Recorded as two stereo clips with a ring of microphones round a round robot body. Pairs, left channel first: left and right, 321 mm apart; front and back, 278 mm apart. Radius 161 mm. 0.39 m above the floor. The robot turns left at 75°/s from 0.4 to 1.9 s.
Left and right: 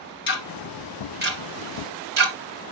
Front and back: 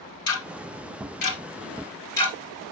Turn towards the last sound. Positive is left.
turn(degrees=-80)